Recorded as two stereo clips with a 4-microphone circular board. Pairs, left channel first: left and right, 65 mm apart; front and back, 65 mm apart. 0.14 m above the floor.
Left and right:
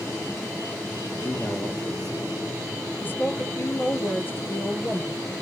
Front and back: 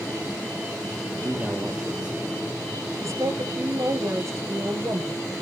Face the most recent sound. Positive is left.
turn(degrees=145)